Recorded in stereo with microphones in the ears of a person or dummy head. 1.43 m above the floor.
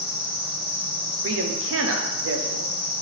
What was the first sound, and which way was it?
An insect, 25° right (ahead or behind).